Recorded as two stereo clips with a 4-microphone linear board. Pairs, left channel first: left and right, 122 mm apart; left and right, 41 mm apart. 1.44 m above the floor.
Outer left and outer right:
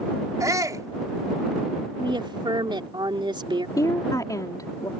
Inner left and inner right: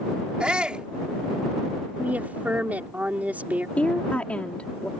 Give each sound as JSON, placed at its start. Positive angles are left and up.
{"t": 0.4, "sound": "a shout", "side_deg": -30}
{"t": 2.0, "sound": "a woman speaking", "side_deg": -45}
{"t": 3.8, "sound": "a woman speaking", "side_deg": 30}